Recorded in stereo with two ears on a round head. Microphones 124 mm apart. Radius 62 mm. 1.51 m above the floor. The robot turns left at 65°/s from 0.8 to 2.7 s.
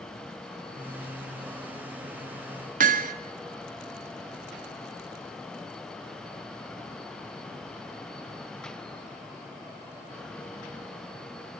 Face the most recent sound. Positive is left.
turn(degrees=-60)  # may be behind; listen again after turning